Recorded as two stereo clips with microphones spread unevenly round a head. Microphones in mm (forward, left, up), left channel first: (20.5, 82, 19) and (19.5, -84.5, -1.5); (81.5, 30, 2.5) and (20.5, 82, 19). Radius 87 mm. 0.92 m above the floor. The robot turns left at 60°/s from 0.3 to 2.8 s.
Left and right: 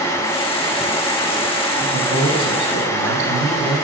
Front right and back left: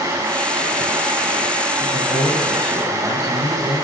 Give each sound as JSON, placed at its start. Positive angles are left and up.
{"t": 1.8, "sound": "a man speaking", "azimuth_deg": -60, "distance_m": 7.0}